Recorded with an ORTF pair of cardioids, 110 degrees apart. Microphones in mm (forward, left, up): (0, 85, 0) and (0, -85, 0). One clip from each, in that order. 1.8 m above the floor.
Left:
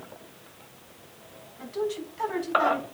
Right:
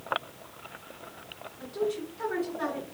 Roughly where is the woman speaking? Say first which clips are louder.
Left 1 dB; ahead left.